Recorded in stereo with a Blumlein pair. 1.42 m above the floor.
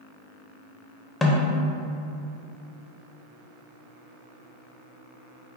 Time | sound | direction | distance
1.2 | a snare drum | 15° left | 0.7 m